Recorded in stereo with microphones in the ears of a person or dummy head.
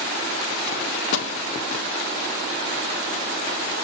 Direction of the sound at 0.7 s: 75° left (ahead or behind).